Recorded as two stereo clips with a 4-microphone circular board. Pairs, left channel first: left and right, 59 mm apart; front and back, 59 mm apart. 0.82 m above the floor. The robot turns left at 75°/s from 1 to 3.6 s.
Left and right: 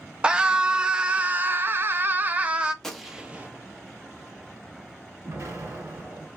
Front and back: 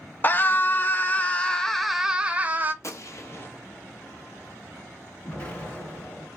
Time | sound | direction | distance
0.2 | a scream | 30° right | 0.6 m
2.8 | a gunshot | 10° left | 0.8 m
5.2 | an explosion | 65° right | 1.7 m